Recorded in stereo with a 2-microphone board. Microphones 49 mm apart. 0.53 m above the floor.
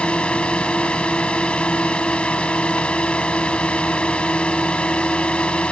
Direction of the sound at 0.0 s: 20° left (ahead or behind).